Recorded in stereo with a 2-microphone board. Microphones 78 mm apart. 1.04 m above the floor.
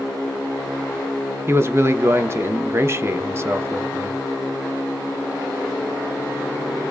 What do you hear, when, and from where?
1.5 s a man speaking: 30° right (ahead or behind), 0.7 m